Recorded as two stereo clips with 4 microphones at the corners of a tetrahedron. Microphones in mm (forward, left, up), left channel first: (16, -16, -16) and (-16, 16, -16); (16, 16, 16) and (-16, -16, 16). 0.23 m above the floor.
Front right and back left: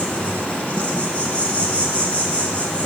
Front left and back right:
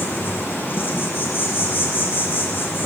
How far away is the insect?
About 2 m.